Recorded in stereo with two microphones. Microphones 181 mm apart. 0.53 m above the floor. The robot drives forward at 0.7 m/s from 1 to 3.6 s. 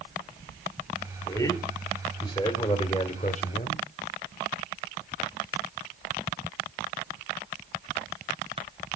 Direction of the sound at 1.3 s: 20° left (ahead or behind).